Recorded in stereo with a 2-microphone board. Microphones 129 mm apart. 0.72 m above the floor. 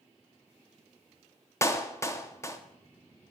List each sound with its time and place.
1.6 s a clap: 20° left (ahead or behind), 0.8 m